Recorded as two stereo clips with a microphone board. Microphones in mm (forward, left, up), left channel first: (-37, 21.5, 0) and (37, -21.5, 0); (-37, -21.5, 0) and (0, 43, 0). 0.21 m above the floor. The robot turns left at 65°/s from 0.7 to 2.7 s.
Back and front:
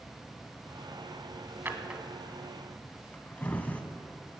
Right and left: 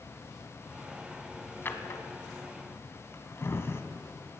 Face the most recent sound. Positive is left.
turn(degrees=-150)